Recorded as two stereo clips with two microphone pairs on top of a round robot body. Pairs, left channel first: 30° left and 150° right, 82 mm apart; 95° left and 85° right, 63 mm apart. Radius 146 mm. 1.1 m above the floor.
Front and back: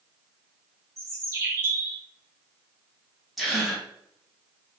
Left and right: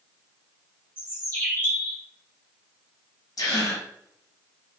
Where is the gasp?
120° left, 0.8 m.